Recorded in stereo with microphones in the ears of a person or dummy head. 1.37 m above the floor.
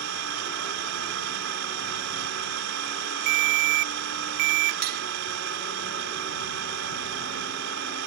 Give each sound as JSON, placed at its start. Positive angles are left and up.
{"t": 0.0, "sound": "an engine running", "side_deg": -70}
{"t": 3.3, "sound": "a ringtone", "side_deg": -50}
{"t": 4.8, "sound": "cutlery clinking", "side_deg": -50}